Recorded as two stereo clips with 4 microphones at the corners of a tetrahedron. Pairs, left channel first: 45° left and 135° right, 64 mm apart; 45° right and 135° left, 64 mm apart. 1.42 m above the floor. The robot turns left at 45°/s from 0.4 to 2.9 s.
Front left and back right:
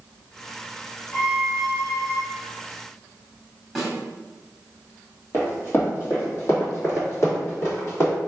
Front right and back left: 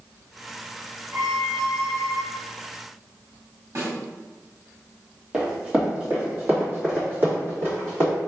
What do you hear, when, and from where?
1.1 s a violin: 145° left, 1.4 m; by 2.2 s 95° left, 1.4 m
3.8 s a snare drum: 135° left, 1.6 m
5.3 s running footsteps: 65° left, 1.8 m; by 8.1 s 85° left, 3.5 m